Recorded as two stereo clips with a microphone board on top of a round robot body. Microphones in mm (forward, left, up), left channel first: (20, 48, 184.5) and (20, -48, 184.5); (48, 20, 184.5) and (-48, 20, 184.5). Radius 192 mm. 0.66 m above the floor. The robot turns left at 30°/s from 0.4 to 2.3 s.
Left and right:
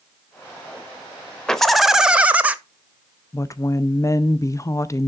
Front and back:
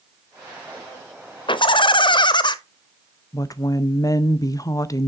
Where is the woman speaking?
40° left, 0.6 m.